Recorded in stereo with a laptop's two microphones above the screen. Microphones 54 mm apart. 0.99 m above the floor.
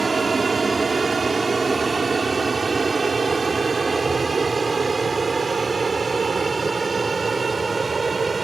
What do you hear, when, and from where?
0.0 s an aircraft: centre (ahead or behind); by 8.4 s 5° left (ahead or behind)